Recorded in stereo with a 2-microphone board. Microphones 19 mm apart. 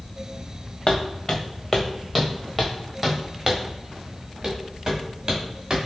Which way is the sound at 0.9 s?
45° left (ahead or behind).